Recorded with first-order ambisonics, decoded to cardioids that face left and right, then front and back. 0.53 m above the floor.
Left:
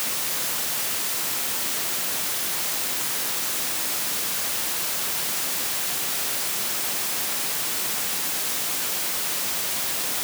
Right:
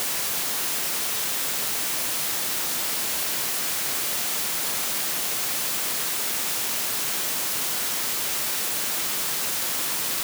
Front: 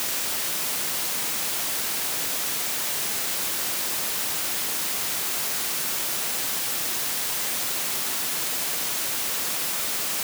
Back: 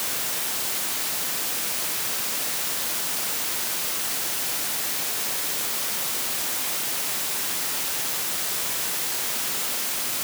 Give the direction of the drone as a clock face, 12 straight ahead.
I don't hear a drone.